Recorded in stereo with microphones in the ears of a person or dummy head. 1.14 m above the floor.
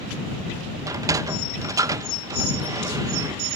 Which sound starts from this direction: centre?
A sliding door, at 0.9 s.